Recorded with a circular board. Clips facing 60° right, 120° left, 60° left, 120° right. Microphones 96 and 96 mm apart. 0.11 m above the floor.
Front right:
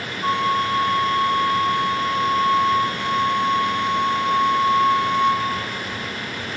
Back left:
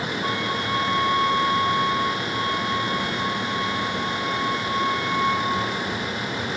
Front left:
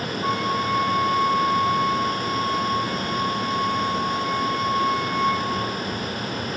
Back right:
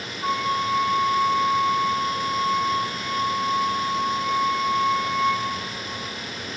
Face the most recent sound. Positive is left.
turn(degrees=-30)